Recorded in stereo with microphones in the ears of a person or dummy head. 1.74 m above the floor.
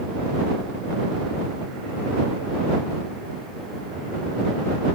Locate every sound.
Only background noise.